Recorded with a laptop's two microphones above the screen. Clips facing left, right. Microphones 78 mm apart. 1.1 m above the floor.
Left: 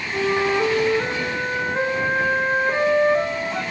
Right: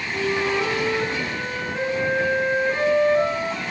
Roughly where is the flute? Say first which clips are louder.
Left 3 dB; left.